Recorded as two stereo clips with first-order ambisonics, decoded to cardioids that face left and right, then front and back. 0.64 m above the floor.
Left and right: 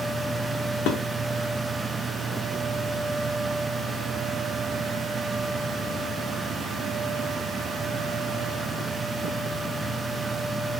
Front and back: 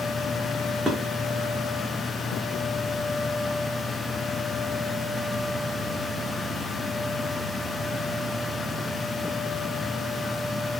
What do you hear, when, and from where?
0.9 s dishes clattering: 105° left, 0.5 m